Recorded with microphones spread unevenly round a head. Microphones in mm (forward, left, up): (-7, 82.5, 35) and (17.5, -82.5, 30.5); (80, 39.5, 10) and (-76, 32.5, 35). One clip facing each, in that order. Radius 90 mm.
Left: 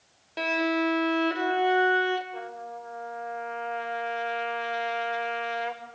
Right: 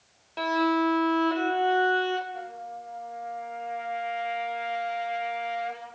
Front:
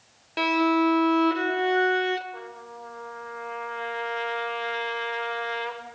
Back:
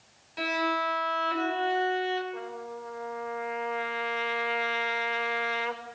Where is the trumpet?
100° left, 6.5 m.